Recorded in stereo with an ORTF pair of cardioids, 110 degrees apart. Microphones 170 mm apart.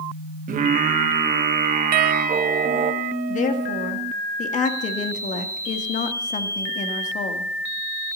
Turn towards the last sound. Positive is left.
turn(degrees=45)